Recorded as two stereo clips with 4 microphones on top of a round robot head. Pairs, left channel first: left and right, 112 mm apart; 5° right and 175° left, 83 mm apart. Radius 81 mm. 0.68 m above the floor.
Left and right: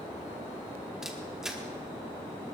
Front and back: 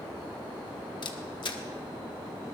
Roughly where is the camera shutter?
Ahead.